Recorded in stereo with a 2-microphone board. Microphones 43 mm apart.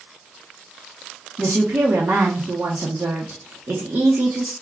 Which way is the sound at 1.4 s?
60° right (ahead or behind).